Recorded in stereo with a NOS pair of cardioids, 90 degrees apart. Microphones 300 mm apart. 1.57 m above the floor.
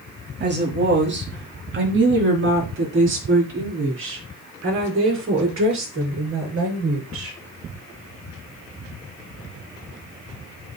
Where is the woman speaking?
35° right, 3 m; by 7.4 s 45° right, 6 m.